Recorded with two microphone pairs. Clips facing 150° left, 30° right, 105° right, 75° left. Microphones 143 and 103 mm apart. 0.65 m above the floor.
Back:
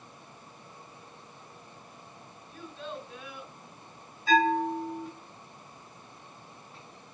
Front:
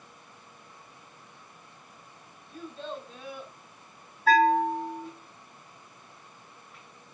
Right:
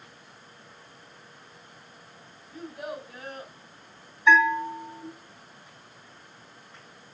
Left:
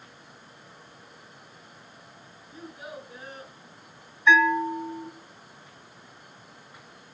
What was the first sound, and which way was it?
A child speaking, 85° right.